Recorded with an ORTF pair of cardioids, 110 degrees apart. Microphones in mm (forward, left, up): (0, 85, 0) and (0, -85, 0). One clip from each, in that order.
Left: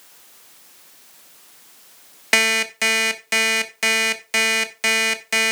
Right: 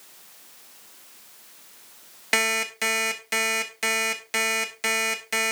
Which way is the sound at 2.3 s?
25° left.